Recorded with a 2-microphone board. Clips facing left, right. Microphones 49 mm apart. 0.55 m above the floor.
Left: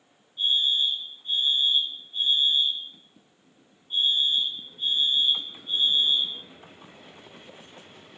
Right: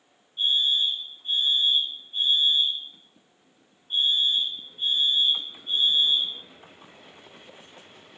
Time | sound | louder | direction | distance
0.4 | a fire alarm | right 1 dB | 55° right (ahead or behind) | 4.5 m